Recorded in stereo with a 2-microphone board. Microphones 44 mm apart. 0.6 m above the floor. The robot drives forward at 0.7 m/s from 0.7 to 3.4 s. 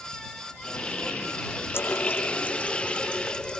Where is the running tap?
55° left (ahead or behind); by 3.6 s 20° left (ahead or behind).